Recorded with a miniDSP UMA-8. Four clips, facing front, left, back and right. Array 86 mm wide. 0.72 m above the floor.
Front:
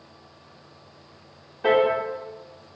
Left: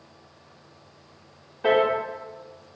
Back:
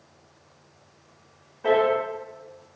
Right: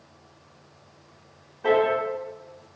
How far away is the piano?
About 0.6 m.